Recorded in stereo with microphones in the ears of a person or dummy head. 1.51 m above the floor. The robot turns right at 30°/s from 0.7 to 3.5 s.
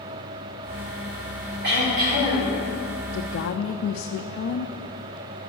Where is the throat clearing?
60° right (ahead or behind), 4.5 m; by 2.6 s 35° right (ahead or behind), 4.5 m.